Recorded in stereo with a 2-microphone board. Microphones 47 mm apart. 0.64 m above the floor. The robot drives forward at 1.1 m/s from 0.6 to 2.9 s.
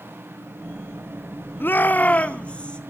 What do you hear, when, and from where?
1.6 s a shout: 45° left (ahead or behind), 0.8 m; by 2.8 s 20° left (ahead or behind), 1.8 m